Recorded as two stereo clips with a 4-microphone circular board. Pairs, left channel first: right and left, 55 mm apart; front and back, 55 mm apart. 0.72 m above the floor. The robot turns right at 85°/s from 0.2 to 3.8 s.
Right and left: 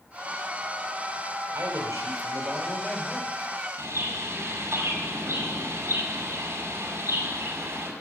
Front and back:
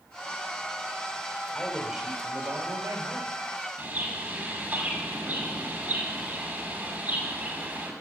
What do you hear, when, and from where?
1.5 s a man speaking: 70° left, 3 m; by 3.4 s 135° right, 3 m
3.8 s a bird: 115° left, 5.5 m